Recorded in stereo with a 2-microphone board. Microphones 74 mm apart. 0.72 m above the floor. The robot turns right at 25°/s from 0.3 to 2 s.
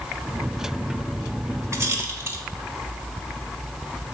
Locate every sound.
1.7 s a rattle: 40° right (ahead or behind), 1.3 m; by 2.4 s 35° right (ahead or behind), 1.3 m